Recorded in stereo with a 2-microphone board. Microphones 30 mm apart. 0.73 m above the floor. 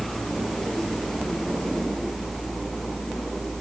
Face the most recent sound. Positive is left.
No sound to turn to.